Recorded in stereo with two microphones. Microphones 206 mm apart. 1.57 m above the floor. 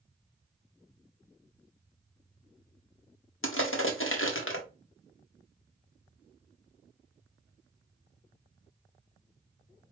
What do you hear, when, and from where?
3.4 s crushing: 80° left, 1.0 m